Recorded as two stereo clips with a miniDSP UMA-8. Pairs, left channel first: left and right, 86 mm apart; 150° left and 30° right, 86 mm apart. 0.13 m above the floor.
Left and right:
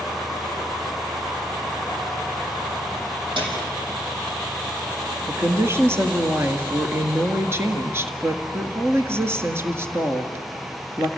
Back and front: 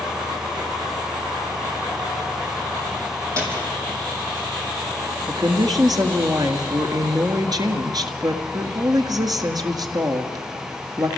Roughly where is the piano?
Right.